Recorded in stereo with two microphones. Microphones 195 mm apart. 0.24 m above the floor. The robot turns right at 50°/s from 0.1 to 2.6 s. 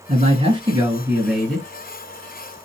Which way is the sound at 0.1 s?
65° right.